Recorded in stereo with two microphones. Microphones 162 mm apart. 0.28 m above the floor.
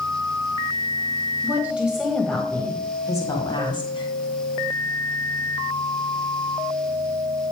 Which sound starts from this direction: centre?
A woman speaking, at 1.4 s.